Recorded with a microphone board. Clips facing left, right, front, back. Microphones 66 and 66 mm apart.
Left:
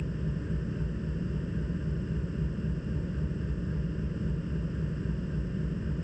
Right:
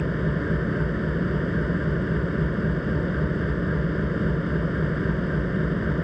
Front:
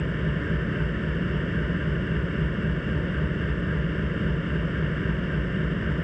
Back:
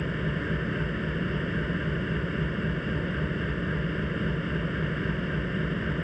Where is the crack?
I don't hear a crack.